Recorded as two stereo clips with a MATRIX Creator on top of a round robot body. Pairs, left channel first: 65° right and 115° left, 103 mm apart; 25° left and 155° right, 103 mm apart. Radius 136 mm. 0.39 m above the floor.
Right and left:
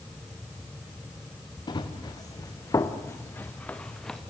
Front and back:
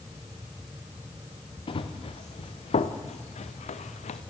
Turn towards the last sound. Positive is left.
turn(degrees=20)